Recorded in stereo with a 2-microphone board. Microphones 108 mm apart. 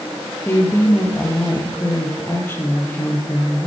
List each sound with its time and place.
0.5 s a woman speaking: 20° left (ahead or behind), 4 m